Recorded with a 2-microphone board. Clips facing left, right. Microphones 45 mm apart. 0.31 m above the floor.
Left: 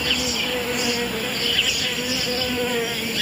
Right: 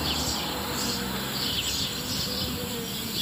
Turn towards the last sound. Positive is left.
turn(degrees=60)  # may be behind; listen again after turning